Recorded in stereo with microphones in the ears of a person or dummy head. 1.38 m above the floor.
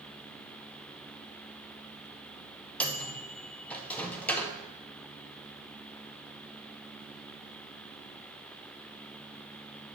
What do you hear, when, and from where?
2.8 s a microwave: 10° left (ahead or behind), 0.6 m